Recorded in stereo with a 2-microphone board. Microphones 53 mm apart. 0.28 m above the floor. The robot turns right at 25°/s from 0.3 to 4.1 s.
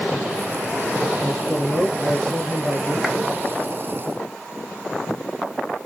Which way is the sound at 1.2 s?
10° left (ahead or behind).